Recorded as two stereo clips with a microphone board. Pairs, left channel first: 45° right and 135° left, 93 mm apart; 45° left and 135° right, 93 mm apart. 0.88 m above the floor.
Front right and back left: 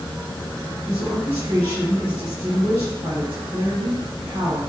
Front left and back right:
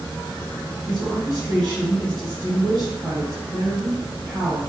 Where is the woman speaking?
140° left, 1.8 m.